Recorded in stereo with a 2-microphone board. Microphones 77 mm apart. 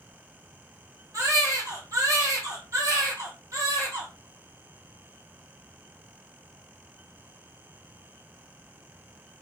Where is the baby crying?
45° right (ahead or behind), 1.8 m.